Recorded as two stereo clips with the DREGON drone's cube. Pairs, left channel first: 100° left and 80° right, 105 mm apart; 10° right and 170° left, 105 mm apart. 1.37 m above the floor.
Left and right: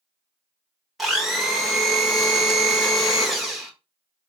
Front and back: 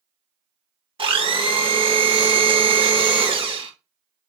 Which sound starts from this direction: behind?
A blender, at 1.0 s.